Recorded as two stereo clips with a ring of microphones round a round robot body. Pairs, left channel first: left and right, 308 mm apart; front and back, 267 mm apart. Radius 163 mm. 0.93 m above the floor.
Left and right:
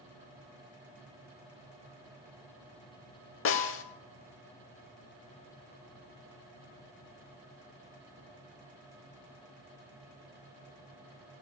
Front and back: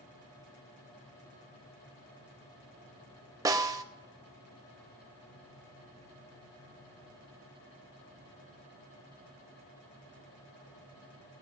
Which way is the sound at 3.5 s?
110° left.